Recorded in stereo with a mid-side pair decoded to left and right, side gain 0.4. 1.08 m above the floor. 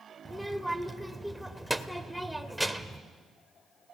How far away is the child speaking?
About 2 m.